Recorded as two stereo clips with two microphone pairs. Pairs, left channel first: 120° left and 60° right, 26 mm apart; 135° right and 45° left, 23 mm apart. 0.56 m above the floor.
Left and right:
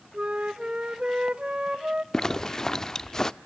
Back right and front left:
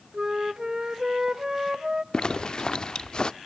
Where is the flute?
15° right, 1.0 m.